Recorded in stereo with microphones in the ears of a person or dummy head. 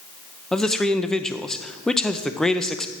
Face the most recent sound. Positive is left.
turn(degrees=0)  # may be behind; listen again after turning